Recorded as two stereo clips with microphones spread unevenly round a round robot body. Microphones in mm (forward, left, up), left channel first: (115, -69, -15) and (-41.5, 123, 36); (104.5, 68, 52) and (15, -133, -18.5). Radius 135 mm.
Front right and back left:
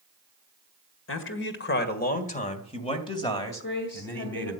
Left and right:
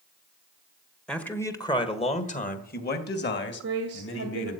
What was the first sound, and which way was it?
A man speaking, 30° right.